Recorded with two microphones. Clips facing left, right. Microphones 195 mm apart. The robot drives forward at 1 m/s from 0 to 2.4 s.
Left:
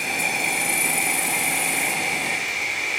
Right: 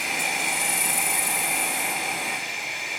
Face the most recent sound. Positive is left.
turn(degrees=75)  # may be behind; listen again after turning